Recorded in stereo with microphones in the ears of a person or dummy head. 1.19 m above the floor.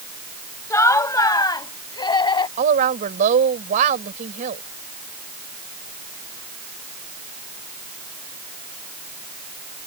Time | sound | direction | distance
0.7 | laughter | 15° left (ahead or behind) | ?
2.6 | a woman speaking | 40° right (ahead or behind) | ?